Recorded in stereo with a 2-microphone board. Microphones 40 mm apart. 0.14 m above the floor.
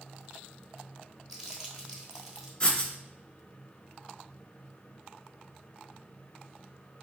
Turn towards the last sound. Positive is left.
turn(degrees=15)  # may be behind; listen again after turning